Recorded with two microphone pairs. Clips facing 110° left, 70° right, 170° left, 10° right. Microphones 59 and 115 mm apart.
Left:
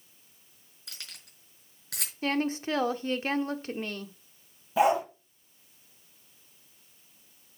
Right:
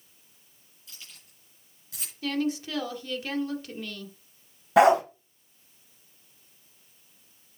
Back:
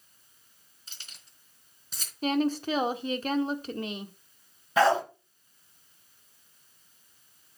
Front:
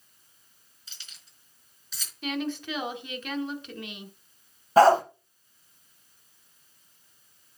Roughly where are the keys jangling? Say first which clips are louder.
Left 3 dB, back 1 dB; behind left.